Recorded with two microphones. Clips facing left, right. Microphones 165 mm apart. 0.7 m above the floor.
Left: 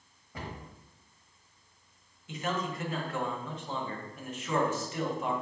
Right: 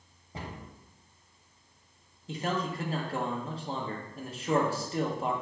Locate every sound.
0.3 s a cupboard door: 25° right (ahead or behind), 1.1 m
2.3 s a man speaking: 35° right (ahead or behind), 0.7 m